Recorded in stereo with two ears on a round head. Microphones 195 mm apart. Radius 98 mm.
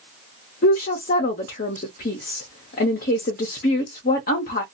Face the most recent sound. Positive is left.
turn(degrees=40)  # may be behind; listen again after turning